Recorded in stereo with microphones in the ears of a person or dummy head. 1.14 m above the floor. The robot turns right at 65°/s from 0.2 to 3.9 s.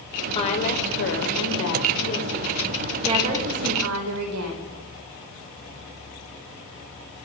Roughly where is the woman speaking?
Ahead left.